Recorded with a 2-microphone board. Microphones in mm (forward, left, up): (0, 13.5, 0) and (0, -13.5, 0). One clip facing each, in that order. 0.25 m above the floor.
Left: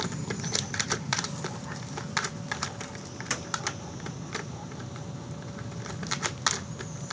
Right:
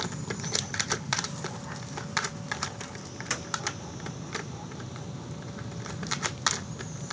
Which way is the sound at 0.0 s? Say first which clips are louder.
Left 1 dB; 20° left (ahead or behind).